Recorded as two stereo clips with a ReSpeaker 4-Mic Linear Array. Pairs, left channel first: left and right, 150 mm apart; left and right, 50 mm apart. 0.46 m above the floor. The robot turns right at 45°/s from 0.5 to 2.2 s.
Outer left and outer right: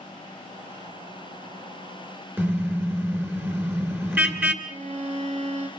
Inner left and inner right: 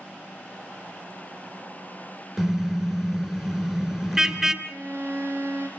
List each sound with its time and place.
2.4 s a car horn: 15° right (ahead or behind), 2 m
4.6 s a violin: 55° right (ahead or behind), 3.5 m